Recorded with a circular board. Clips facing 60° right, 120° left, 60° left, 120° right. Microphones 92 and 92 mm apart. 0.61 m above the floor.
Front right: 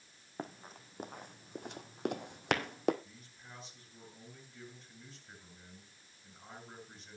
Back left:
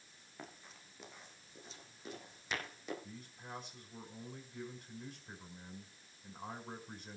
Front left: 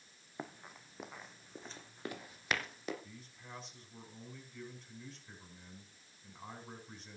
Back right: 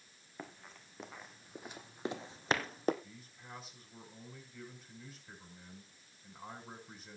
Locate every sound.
0.4 s running footsteps: 15° right, 2.0 m; by 2.9 s 80° right, 1.6 m
3.0 s a man speaking: 155° left, 5 m